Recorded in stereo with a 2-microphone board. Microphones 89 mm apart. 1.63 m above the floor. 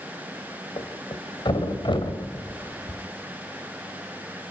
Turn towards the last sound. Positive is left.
turn(degrees=65)  # may be behind; listen again after turning